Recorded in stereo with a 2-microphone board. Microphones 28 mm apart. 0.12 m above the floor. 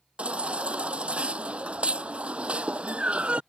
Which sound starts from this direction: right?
A baby crying, at 0.2 s.